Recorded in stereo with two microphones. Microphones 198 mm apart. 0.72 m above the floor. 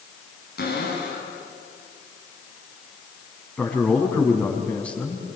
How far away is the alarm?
No alarm in this recording.